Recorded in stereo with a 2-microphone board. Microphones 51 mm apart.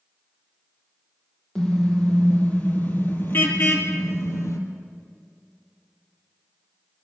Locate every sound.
1.6 s a car horn: 15° left (ahead or behind), 4 m; by 4.6 s 65° left (ahead or behind), 3 m